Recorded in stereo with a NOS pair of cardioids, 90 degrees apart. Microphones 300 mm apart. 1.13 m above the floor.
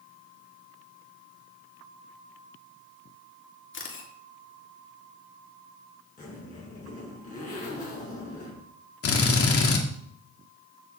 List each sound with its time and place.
3.7 s a camera shutter: 45° left, 3 m
6.2 s a zipper: 30° left, 7.5 m
9.0 s a drill: 55° left, 2.5 m